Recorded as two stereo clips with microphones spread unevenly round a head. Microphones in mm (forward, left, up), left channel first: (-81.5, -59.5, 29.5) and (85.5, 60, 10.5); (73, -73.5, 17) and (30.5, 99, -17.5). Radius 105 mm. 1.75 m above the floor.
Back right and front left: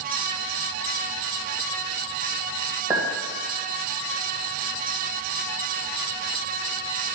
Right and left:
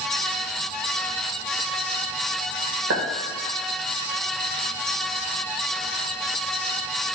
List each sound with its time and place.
2.9 s a clink: 115° left, 2 m